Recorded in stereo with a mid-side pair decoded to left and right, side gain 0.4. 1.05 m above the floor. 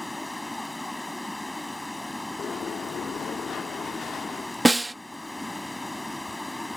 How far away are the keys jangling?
I don't hear keys jangling.